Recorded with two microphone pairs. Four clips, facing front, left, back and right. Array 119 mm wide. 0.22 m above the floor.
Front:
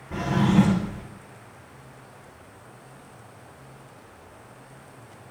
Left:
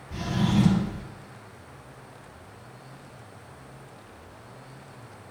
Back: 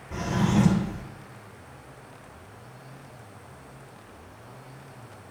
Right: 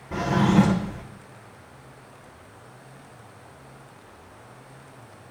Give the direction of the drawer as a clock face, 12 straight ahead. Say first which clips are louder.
Right 5 dB, front 4 dB; 3 o'clock.